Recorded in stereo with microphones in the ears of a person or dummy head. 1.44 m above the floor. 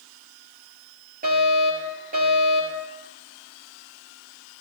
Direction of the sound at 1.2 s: 45° right (ahead or behind).